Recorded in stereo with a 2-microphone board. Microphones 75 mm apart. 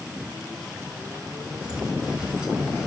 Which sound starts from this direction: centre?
Footsteps, at 1.6 s.